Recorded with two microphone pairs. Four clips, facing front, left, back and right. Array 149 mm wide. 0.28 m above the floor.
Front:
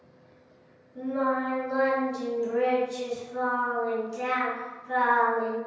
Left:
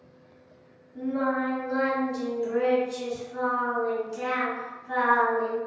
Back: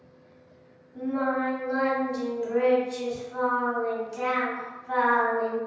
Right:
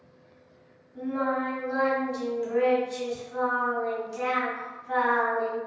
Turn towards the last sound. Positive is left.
turn(degrees=-150)